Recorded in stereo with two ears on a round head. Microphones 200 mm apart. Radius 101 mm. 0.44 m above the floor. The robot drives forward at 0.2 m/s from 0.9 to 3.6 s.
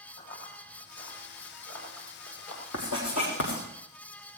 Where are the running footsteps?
45° left (ahead or behind), 8.5 m; by 2.6 s 70° left (ahead or behind), 8 m.